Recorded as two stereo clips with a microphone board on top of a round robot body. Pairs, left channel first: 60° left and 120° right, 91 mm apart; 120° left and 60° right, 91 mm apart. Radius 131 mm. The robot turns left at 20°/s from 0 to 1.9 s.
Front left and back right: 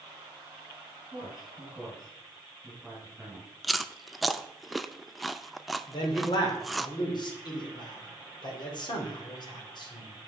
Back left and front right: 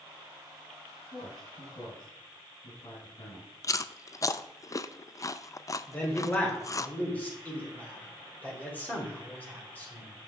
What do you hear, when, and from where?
1.1 s a man speaking: 160° left, 3.5 m; by 3.5 s 140° left, 3.5 m
3.6 s chewing: 150° left, 0.5 m
5.9 s a man speaking: 50° left, 2.5 m